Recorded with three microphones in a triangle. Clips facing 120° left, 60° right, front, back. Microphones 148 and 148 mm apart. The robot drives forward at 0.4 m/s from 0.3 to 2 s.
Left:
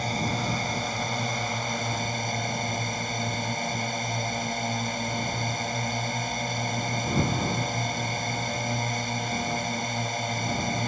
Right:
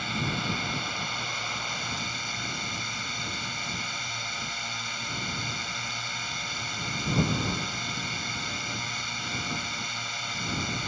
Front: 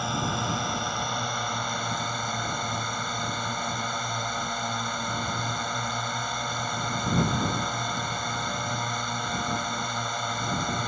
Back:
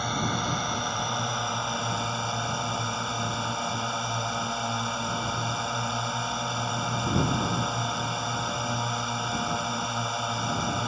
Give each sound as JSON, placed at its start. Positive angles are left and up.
{"t": 0.0, "sound": "a drone", "azimuth_deg": 85}